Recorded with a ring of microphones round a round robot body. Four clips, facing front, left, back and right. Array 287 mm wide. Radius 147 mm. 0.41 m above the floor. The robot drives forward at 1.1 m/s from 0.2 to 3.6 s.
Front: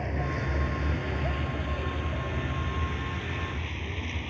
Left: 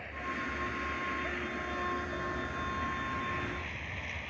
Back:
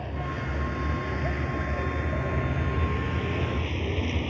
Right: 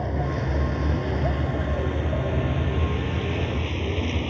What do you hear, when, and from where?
0.0 s a vehicle: 85° right; by 4.3 s 120° right